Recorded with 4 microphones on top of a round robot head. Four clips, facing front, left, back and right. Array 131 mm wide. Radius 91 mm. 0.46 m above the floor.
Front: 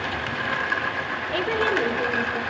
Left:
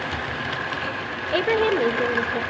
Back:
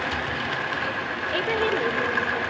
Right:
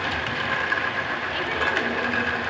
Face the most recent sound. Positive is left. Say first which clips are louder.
# left 8 dB, front 1 dB
turn(degrees=80)